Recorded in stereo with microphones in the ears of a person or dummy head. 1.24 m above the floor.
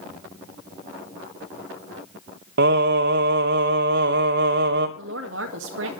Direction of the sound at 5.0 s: 70° right (ahead or behind).